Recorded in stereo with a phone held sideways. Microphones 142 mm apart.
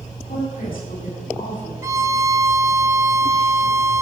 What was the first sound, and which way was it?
A woman speaking, 75° left (ahead or behind).